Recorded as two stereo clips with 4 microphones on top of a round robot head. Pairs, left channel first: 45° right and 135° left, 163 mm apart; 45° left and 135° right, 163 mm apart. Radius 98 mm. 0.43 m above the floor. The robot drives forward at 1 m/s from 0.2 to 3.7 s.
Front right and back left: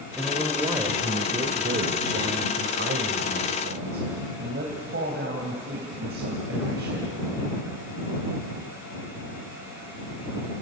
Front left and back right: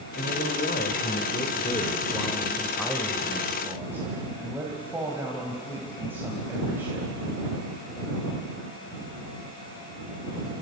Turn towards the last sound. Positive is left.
turn(degrees=150)